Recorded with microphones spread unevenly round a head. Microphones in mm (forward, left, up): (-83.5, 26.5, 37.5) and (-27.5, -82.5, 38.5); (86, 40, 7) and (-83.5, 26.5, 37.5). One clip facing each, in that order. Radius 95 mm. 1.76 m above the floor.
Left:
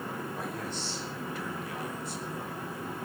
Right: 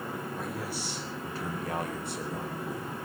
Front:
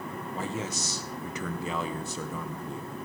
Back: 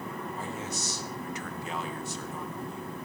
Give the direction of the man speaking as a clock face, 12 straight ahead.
11 o'clock.